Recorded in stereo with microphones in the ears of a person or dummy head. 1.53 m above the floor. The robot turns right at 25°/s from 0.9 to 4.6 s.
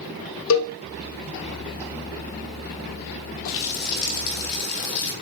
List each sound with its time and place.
0.5 s a cowbell: 75° left (ahead or behind), 1.0 m
3.5 s a running tap: 45° left (ahead or behind), 1.1 m; by 5.1 s 50° left (ahead or behind), 1.1 m